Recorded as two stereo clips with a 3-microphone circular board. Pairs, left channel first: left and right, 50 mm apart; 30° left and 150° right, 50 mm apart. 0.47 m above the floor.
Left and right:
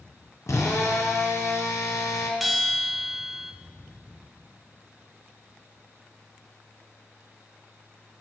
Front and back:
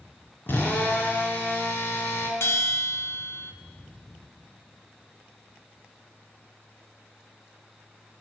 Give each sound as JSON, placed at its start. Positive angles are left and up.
{"t": 0.5, "sound": "a drill", "azimuth_deg": 75, "distance_m": 2.5}
{"t": 2.4, "sound": "a bell", "azimuth_deg": 0, "distance_m": 1.1}